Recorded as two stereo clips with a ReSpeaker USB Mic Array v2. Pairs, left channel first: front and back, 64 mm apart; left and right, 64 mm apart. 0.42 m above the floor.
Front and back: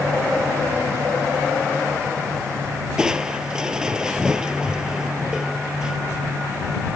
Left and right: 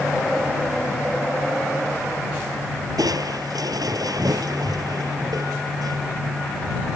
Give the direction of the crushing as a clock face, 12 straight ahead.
3 o'clock.